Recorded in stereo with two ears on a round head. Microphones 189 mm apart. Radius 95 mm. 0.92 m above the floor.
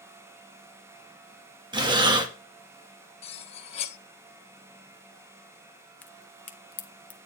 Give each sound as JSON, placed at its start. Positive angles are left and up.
{"t": 1.7, "sound": "breathing", "side_deg": -25, "distance_m": 0.9}
{"t": 3.2, "sound": "cutlery clinking", "side_deg": 30, "distance_m": 0.8}
{"t": 6.0, "sound": "a crack", "side_deg": 10, "distance_m": 0.6}